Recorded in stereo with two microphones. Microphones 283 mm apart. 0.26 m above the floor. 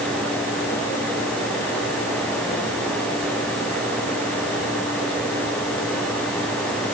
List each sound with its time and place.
Only background noise.